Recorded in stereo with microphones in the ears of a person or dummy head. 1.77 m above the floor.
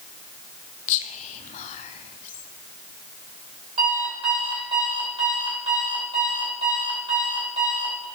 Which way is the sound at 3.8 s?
35° right (ahead or behind).